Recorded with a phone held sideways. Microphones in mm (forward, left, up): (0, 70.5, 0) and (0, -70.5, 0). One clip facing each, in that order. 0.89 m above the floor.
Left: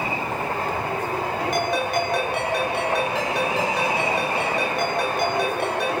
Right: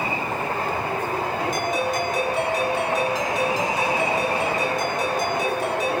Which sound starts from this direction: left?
A ringtone, at 1.5 s.